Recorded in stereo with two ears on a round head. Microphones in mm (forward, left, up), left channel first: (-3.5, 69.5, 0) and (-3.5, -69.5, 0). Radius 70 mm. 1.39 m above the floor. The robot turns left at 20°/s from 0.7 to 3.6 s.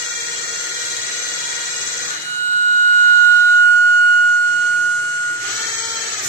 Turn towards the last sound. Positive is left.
turn(degrees=-75)